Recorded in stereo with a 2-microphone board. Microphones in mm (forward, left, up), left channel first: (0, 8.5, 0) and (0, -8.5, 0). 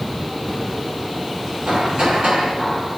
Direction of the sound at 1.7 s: 85° right.